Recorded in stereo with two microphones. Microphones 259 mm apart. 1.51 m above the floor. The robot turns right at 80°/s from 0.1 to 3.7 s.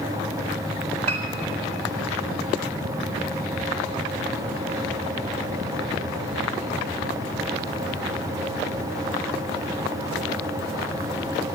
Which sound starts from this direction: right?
A piano, at 1.1 s.